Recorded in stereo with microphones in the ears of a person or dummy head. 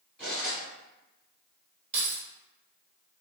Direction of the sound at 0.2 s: Centre (ahead or behind).